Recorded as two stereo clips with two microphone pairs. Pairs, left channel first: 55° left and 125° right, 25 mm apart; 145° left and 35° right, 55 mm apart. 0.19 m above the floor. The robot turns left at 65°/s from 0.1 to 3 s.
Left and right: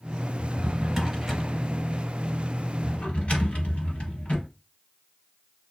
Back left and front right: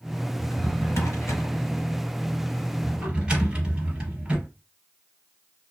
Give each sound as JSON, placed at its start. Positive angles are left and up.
{"t": 0.4, "sound": "a drawer", "azimuth_deg": -155, "distance_m": 1.5}